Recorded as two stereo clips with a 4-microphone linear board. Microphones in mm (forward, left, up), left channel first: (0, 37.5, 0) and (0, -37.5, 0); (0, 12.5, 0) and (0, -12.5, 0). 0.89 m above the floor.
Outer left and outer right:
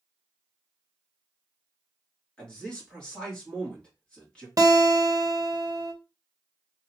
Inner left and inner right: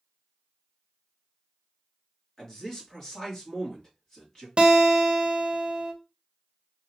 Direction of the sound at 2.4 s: 10° left (ahead or behind).